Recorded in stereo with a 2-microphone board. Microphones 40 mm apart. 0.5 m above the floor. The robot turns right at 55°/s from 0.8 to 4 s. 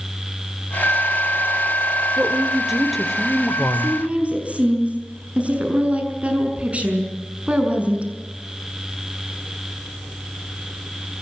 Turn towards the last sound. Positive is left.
turn(degrees=-35)  # may be behind; listen again after turning